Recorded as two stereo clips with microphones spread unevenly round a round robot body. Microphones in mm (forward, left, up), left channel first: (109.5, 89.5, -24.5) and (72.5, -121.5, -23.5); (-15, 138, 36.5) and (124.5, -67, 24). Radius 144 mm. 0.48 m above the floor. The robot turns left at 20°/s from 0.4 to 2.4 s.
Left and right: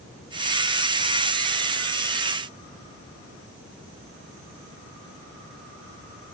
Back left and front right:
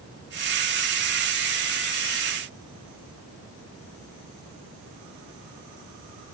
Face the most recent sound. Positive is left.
No sound to turn to.